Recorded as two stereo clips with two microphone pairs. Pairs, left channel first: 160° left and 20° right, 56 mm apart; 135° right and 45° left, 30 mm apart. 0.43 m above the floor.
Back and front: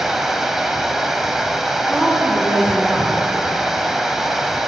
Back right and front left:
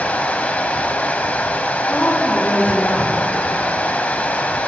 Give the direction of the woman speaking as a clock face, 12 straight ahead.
3 o'clock.